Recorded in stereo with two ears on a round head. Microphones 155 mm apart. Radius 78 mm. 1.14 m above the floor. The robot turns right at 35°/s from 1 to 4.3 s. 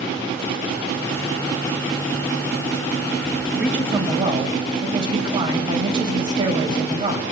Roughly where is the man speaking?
Centre.